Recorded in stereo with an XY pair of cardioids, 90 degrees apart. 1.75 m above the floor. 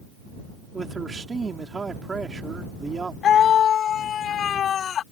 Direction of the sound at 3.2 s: 70° left.